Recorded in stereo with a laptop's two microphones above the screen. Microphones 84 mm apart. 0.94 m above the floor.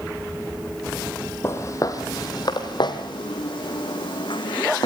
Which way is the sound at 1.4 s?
30° left (ahead or behind).